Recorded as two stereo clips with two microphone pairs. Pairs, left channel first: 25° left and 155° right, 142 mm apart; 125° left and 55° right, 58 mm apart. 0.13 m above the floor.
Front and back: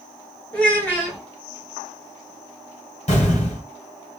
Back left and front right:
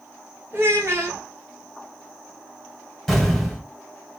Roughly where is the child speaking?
Ahead right.